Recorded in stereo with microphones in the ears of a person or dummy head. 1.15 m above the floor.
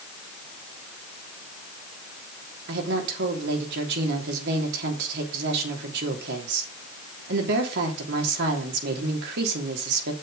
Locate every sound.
2.7 s a woman speaking: 60° right (ahead or behind), 3 m